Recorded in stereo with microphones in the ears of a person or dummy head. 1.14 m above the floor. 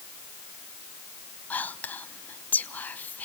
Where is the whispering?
10° left (ahead or behind), 1.0 m.